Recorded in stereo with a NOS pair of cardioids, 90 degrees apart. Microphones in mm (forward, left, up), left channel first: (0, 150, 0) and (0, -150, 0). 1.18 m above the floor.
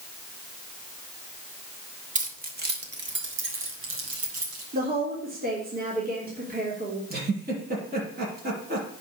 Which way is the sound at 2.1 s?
25° right.